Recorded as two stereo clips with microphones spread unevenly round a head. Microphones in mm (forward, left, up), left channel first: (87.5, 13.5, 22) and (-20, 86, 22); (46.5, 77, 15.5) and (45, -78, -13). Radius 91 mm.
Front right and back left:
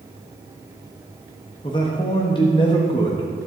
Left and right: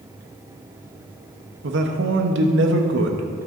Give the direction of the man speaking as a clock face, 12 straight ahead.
3 o'clock.